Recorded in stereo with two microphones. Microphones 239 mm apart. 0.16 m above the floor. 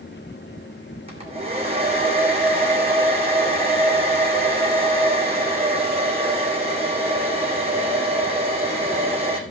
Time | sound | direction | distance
1.1 | a hair dryer | 25° right (ahead or behind) | 2.5 m